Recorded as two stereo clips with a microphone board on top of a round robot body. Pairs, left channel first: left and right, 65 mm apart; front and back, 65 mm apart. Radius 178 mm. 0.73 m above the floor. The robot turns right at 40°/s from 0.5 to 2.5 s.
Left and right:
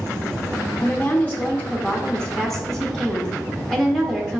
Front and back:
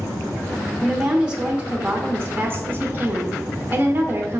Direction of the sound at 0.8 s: 100° left.